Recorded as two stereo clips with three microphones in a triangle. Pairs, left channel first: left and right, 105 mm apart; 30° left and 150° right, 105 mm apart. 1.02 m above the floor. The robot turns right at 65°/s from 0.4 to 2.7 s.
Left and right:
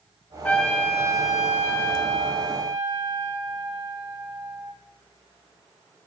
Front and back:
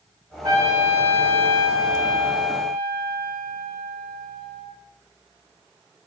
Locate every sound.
0.4 s a trumpet: 160° left, 1.0 m; by 4.7 s 50° right, 1.0 m